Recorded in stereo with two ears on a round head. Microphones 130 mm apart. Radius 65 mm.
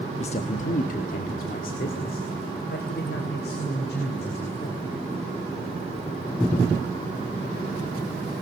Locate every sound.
0.2 s a man speaking: 45° left (ahead or behind), 1.0 m; by 4.9 s 80° left, 4 m